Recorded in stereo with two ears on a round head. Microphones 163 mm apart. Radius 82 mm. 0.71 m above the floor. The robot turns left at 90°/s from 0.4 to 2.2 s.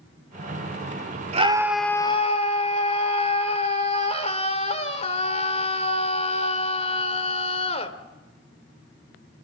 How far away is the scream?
About 2 m.